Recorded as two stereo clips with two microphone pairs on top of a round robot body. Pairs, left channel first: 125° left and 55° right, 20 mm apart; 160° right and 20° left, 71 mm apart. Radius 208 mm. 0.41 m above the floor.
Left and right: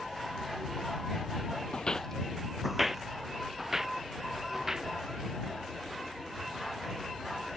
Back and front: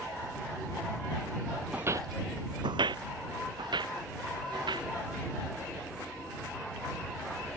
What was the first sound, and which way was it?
Footsteps, 95° left.